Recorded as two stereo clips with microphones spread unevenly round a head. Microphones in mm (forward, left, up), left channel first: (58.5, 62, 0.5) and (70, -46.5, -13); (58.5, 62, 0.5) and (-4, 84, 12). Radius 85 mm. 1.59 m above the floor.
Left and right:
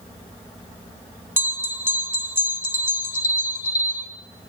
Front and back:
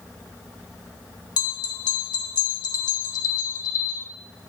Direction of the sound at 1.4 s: 10° right.